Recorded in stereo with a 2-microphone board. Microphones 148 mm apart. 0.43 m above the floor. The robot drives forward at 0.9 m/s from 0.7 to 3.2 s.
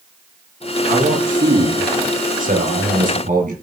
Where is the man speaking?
80° right, 5.5 m; by 3.5 s 65° right (ahead or behind), 6 m.